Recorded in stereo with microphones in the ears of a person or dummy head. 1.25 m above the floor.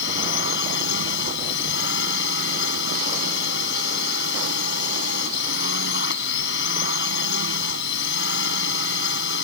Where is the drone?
70° left (ahead or behind).